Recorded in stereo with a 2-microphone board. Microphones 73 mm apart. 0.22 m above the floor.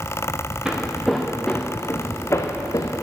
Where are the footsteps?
10° right (ahead or behind), 1.6 m; by 3.0 s 55° left (ahead or behind), 1.7 m.